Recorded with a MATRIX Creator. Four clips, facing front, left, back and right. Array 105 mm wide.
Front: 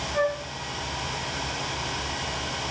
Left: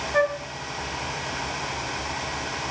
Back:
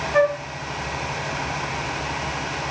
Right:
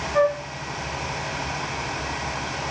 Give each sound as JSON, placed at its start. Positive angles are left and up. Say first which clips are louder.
{"t": 0.1, "sound": "a flute", "louder": "right 3 dB, back 7 dB", "azimuth_deg": 155, "distance_m": 4.0}